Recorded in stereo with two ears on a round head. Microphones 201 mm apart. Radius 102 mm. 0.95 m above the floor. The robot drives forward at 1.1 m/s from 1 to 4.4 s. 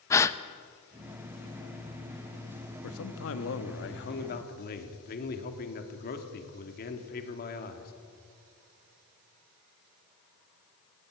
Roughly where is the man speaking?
Left.